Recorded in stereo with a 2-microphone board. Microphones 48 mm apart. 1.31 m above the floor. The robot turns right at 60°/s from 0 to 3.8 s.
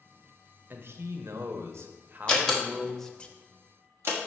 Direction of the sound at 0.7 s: 130° right.